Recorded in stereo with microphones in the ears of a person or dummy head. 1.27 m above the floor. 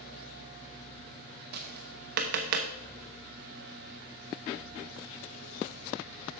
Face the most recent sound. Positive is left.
turn(degrees=-50)  # may be behind; listen again after turning